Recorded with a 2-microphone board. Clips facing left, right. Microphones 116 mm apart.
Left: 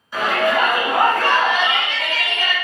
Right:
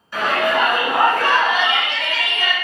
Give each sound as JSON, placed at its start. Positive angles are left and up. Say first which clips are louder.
{"t": 0.1, "sound": "a shout", "louder": "even", "side_deg": 5, "distance_m": 1.8}